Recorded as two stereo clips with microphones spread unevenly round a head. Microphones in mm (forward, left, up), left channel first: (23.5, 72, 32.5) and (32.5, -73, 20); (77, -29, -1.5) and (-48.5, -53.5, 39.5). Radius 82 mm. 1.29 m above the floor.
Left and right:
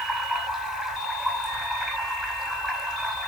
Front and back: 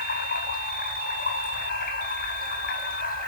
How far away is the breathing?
I don't hear breathing.